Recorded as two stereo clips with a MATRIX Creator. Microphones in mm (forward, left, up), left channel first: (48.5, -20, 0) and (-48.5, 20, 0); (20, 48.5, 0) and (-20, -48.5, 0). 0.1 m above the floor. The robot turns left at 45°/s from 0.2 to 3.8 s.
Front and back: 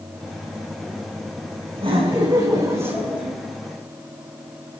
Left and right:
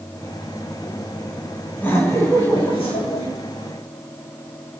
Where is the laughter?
140° left, 7 m; by 3.3 s 70° left, 7 m.